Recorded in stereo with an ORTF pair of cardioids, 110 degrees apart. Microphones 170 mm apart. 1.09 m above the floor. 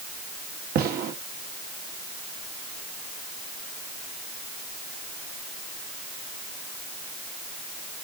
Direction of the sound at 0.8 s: 65° right.